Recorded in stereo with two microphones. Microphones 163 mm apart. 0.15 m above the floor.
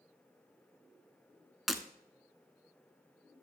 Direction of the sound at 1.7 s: Centre (ahead or behind).